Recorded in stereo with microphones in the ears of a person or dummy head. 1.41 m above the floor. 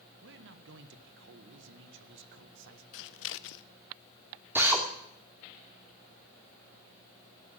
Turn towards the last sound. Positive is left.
turn(degrees=-10)  # may be behind; listen again after turning